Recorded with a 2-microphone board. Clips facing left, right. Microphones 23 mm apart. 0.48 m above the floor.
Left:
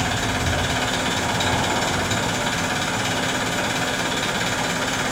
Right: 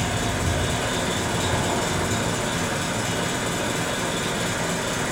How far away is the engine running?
About 1.1 m.